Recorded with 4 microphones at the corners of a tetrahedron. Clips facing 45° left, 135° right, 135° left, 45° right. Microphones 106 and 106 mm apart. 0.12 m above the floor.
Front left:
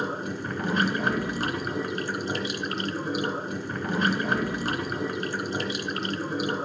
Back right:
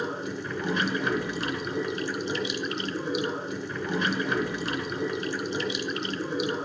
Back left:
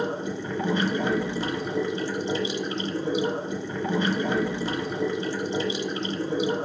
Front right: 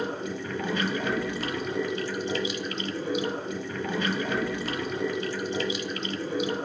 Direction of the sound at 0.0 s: 70° left.